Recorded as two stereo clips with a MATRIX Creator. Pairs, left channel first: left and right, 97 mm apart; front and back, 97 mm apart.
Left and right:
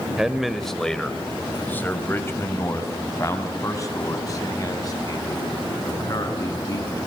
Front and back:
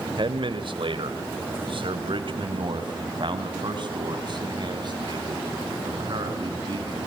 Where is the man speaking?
175° right, 2 m; by 7.1 s 135° left, 6.5 m.